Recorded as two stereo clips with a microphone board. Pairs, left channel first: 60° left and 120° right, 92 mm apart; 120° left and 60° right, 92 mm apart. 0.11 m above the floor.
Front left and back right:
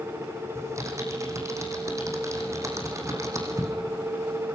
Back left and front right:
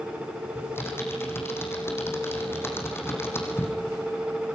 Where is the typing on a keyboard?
175° right, 6 m.